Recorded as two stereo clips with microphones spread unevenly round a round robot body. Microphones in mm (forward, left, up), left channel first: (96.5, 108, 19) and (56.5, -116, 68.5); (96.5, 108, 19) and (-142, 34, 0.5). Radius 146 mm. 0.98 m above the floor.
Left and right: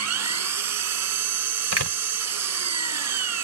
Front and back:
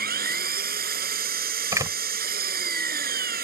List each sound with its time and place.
0.0 s an engine running: 100° right
1.7 s a door slam: 80° right